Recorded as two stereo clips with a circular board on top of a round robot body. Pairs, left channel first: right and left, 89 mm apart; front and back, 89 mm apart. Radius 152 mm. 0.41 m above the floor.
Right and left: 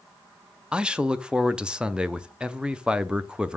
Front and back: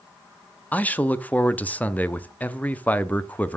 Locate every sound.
0.7 s a man speaking: 30° left, 0.8 m